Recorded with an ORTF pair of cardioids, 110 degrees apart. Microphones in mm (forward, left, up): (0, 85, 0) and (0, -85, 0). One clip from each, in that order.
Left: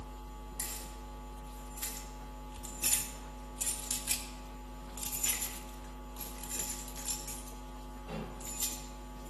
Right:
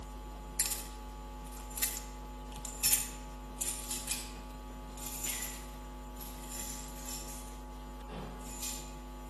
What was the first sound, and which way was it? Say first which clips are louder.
Keys jangling: right 5 dB; 65° right.